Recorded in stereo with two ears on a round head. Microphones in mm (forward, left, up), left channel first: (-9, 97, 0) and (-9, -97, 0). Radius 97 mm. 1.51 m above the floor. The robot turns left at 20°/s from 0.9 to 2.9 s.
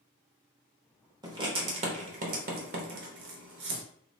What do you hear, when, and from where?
1.2 s writing: 20° right (ahead or behind), 0.9 m; by 3.8 s 50° right (ahead or behind), 0.9 m